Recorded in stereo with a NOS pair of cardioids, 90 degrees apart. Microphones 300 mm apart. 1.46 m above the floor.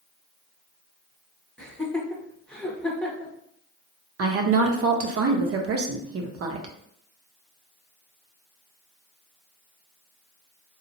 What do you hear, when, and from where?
1.6 s laughter: 5° left, 0.9 m
4.2 s a woman speaking: 50° right, 0.8 m